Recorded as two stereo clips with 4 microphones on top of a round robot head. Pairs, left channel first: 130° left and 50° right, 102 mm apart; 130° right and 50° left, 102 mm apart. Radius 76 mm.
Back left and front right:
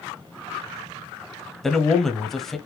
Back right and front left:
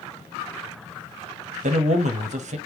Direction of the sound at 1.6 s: 45° left.